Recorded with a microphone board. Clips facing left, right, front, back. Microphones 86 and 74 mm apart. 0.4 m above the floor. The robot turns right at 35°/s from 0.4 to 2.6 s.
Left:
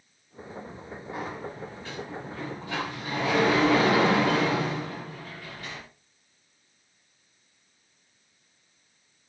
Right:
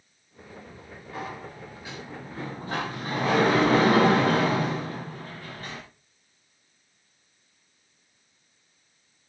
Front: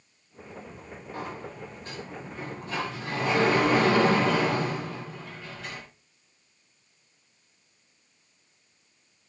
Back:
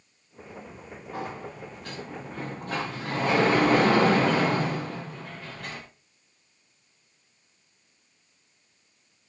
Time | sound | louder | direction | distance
1.1 | a sliding door | left 1 dB, back 2 dB | 165° left | 7 m